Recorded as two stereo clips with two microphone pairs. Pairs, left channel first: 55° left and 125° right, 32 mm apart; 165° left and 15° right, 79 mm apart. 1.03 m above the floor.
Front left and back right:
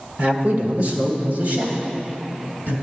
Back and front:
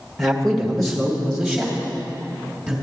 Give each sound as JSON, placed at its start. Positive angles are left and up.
{"t": 0.2, "sound": "a man speaking", "azimuth_deg": -110, "distance_m": 1.6}